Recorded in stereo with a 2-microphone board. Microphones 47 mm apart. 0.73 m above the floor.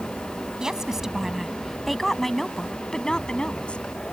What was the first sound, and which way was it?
A woman speaking, 15° right (ahead or behind).